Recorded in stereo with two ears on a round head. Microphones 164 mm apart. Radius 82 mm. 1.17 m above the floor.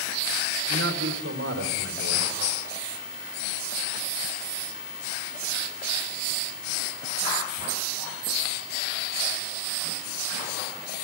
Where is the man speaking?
80° right, 5 m.